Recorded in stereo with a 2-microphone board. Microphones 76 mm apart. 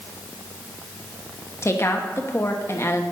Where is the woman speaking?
40° left (ahead or behind), 1.1 m.